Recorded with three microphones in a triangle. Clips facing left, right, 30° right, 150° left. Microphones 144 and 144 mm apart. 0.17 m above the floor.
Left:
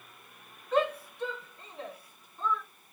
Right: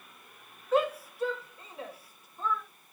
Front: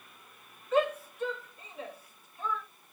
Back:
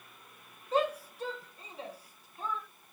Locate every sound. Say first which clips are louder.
0.7 s a shout: right 1 dB, front 2 dB; 175° right, 2 m